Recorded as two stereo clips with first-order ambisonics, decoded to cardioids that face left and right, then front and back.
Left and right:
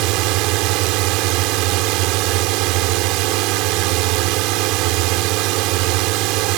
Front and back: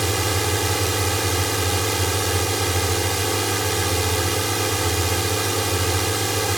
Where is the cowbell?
I don't hear a cowbell.